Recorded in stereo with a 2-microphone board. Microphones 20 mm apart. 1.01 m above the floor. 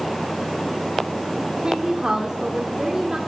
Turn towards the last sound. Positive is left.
turn(degrees=-40)  # may be behind; listen again after turning